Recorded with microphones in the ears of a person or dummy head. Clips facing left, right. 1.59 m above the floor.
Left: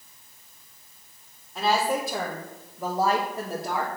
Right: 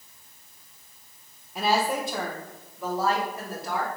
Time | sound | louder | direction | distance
1.6 | a woman speaking | left 1 dB | 10° right (ahead or behind) | 0.8 m